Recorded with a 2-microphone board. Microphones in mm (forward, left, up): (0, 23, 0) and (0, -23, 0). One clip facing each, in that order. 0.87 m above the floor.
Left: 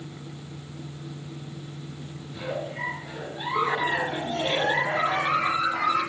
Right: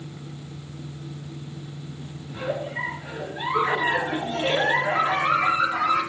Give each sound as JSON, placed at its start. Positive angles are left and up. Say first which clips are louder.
{"t": 2.3, "sound": "a giggle", "louder": "right 3 dB", "side_deg": -65, "distance_m": 3.0}